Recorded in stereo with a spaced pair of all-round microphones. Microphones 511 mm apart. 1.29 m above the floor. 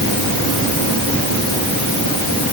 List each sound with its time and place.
Only background noise.